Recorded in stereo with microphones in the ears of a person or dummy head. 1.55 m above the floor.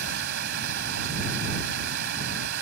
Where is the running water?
60° right (ahead or behind).